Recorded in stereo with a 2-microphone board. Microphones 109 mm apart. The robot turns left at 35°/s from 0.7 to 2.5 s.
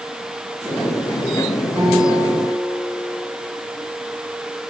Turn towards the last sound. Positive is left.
turn(degrees=-50)  # may be behind; listen again after turning